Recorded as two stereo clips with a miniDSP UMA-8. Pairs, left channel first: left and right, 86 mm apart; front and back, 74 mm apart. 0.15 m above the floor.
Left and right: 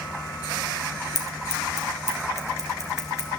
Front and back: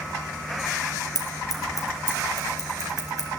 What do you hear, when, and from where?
1.1 s scissors: 35° left, 3 m